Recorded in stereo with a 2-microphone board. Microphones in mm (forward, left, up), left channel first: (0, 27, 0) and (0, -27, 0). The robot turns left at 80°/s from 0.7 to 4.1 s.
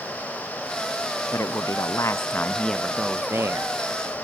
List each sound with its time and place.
1.3 s a man speaking: 120° left; by 3.7 s 75° right